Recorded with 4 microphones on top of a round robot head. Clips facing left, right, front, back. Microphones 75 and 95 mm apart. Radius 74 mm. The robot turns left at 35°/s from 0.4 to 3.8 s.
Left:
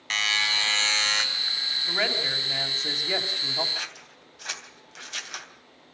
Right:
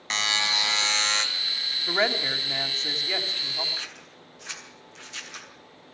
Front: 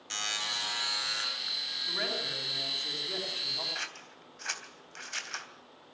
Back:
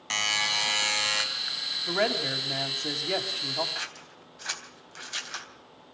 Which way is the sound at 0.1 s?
155° right.